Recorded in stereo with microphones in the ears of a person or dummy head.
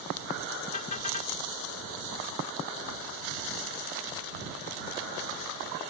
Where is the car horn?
40° left (ahead or behind).